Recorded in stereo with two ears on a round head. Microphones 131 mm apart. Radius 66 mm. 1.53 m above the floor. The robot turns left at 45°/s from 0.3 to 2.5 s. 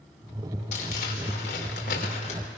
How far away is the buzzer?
No buzzer in this recording.